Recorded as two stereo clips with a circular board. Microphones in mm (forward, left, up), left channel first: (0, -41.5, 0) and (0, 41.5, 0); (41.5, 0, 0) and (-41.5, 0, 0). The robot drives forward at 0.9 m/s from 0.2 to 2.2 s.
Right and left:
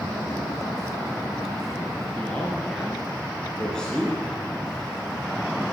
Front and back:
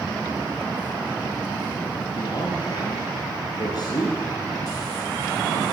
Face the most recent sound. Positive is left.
turn(degrees=-10)